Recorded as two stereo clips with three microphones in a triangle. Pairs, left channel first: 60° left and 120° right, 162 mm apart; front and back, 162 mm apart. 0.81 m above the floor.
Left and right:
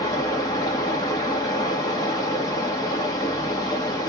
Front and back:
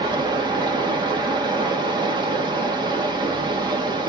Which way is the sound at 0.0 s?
125° left.